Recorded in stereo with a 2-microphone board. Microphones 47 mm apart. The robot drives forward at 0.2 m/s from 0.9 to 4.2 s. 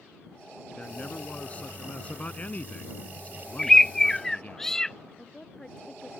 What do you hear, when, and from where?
0.8 s a man speaking: 30° left (ahead or behind); by 4.6 s 35° left (ahead or behind)
3.6 s a bird: 10° left (ahead or behind)
5.2 s a woman speaking: 20° left (ahead or behind)